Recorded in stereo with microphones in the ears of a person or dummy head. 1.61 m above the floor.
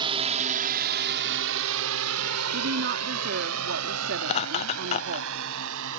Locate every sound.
0.0 s a drone: 25° right (ahead or behind); by 6.0 s 70° right (ahead or behind)
2.5 s a woman speaking: 55° right (ahead or behind)
4.2 s laughter: 30° left (ahead or behind)